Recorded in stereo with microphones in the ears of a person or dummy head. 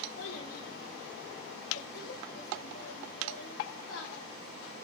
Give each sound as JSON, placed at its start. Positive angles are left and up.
{"t": 0.2, "sound": "a child speaking", "side_deg": 80, "distance_m": 4.0}